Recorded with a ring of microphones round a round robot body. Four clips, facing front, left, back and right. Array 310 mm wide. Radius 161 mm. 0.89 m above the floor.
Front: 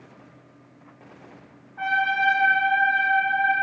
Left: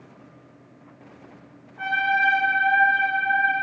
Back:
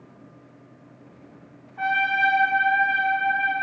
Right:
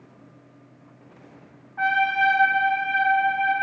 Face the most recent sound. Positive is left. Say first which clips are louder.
# right 1 dB, even
turn(degrees=-80)